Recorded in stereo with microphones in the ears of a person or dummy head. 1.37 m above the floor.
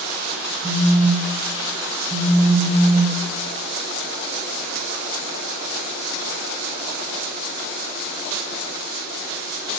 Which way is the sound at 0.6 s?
30° right (ahead or behind).